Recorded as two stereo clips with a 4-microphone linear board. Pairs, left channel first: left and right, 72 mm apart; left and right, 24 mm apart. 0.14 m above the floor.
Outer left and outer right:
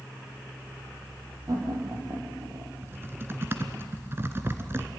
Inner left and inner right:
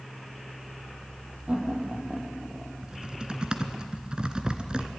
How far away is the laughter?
About 5 m.